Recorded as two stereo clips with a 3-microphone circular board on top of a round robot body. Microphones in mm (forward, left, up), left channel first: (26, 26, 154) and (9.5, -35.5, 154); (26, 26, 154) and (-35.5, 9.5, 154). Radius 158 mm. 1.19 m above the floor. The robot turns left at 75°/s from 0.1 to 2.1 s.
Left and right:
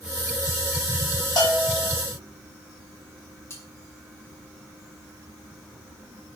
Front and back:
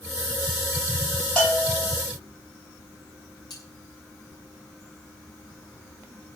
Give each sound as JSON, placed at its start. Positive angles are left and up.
{"t": 1.4, "sound": "a bell", "azimuth_deg": 85, "distance_m": 9.5}
{"t": 3.5, "sound": "cutlery clinking", "azimuth_deg": 25, "distance_m": 9.0}